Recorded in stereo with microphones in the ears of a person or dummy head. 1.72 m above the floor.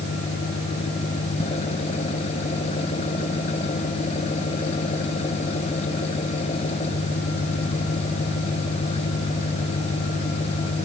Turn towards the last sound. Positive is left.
turn(degrees=40)  # may be behind; listen again after turning